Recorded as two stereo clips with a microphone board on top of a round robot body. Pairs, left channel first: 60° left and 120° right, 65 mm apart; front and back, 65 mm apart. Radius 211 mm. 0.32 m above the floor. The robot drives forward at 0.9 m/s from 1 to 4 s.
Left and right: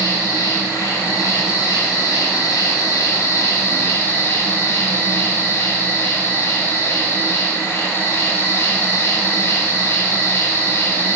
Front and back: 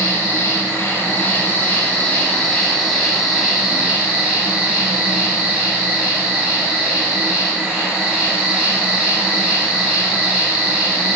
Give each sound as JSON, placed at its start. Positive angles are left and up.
{"t": 0.0, "sound": "an insect", "azimuth_deg": 55, "distance_m": 3.5}